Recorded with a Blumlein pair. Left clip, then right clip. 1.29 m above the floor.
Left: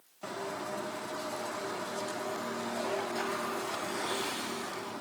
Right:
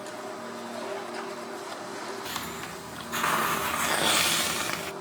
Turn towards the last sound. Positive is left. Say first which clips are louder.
# right 1 dB
turn(degrees=-50)